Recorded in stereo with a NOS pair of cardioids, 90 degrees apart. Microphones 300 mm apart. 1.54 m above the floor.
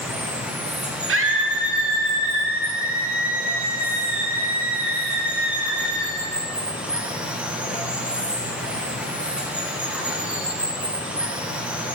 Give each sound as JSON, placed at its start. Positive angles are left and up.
{"t": 0.0, "sound": "running water", "azimuth_deg": -5, "distance_m": 1.0}
{"t": 1.1, "sound": "a scream", "azimuth_deg": -45, "distance_m": 1.3}